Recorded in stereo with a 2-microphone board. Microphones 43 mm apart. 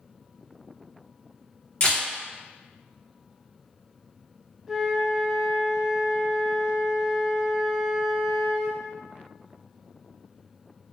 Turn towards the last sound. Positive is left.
turn(degrees=-10)  # may be behind; listen again after turning